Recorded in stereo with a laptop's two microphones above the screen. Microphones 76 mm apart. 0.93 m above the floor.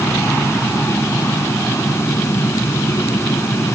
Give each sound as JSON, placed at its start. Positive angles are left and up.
{"t": 0.0, "sound": "a fan", "side_deg": 35}